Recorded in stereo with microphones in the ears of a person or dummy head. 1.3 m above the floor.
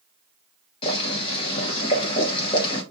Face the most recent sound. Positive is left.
turn(degrees=35)  # may be behind; listen again after turning